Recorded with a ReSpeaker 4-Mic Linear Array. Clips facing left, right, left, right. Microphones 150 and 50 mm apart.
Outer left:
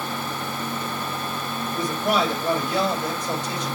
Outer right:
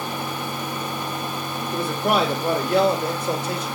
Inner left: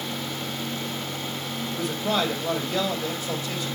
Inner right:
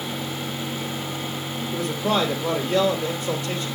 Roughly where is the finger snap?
No finger snap in this recording.